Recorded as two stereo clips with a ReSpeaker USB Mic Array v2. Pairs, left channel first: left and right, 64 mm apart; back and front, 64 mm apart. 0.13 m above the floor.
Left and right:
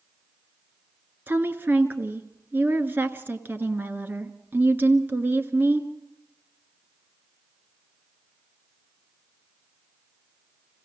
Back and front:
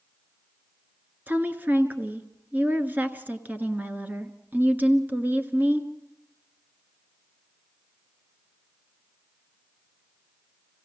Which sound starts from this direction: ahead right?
A woman speaking, at 1.3 s.